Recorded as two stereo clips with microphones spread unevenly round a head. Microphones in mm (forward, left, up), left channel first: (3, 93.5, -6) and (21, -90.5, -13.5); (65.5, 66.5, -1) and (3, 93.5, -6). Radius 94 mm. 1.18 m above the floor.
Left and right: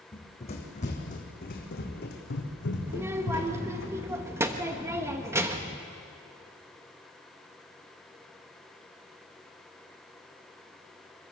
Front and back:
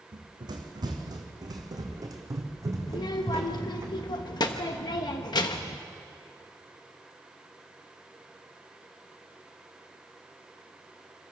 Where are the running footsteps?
155° left, 3.5 m; by 3.9 s 105° left, 4 m.